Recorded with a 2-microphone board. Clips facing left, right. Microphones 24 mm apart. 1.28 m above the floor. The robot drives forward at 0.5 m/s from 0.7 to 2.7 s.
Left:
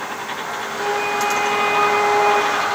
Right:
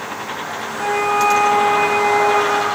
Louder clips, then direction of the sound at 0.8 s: Right 4 dB; 65° right (ahead or behind).